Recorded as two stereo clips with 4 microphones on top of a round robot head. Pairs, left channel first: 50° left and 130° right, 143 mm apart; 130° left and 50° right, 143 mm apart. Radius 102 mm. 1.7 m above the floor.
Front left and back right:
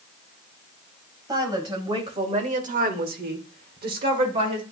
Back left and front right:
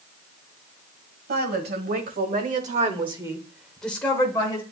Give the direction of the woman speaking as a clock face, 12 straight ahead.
2 o'clock.